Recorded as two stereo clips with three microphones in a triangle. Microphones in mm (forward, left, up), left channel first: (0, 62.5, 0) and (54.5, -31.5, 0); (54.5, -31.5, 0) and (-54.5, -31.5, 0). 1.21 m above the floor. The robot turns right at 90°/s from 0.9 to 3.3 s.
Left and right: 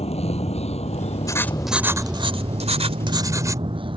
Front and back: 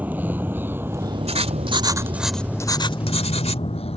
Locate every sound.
0.0 s a vehicle: 105° left; by 4.0 s 20° right
1.3 s writing: 175° left; by 3.6 s straight ahead